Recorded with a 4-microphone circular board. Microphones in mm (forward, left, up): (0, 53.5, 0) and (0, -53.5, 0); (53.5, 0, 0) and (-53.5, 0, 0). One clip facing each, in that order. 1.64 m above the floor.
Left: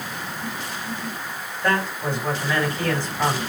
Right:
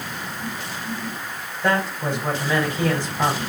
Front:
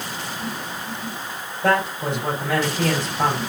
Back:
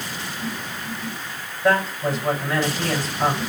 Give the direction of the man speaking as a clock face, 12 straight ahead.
1 o'clock.